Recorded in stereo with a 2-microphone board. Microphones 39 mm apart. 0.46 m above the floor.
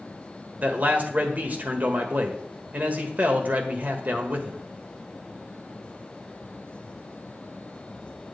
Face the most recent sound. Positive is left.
turn(degrees=-40)  # may be behind; listen again after turning